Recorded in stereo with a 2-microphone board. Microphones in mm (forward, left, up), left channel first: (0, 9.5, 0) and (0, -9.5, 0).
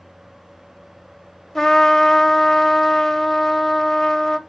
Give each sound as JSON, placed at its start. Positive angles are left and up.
{"t": 1.6, "sound": "a trumpet", "side_deg": 20, "distance_m": 1.0}